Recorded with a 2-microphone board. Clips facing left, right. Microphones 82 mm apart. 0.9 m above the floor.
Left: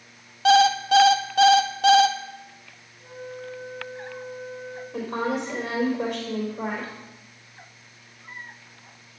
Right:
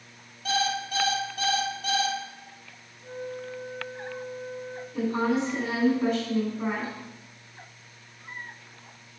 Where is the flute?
65° left (ahead or behind), 4.5 m.